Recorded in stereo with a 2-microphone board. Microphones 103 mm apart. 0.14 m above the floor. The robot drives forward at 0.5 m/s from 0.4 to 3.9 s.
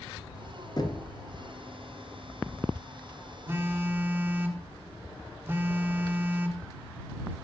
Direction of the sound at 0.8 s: 40° left (ahead or behind).